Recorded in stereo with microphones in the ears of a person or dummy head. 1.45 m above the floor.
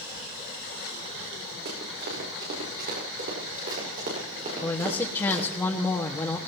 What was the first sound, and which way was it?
Running footsteps, 60° right (ahead or behind).